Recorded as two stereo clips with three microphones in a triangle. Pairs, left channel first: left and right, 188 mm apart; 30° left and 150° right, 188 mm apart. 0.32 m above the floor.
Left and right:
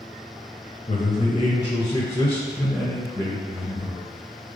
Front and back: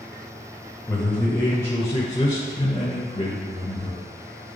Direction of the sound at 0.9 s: 110° left.